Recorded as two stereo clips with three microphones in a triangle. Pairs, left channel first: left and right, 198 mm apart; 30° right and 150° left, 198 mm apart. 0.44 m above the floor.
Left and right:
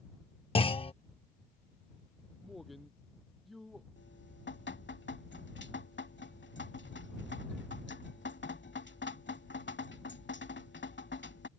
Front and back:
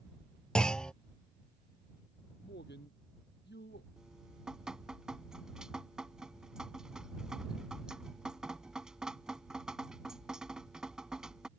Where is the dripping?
65° left.